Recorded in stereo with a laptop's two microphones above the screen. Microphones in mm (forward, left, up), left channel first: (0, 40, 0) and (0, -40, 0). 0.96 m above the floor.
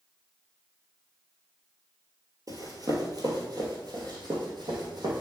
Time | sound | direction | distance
2.5 | running footsteps | 45° right (ahead or behind) | 1.5 m